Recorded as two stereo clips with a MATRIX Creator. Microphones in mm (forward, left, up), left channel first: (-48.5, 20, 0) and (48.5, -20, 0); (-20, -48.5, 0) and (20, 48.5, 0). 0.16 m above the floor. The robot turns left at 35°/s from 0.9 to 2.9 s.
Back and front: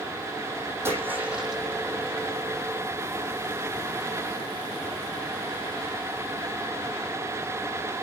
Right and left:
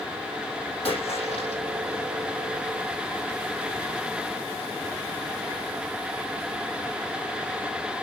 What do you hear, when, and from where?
0.8 s a splash: 90° right, 5 m; by 1.6 s 115° right, 5 m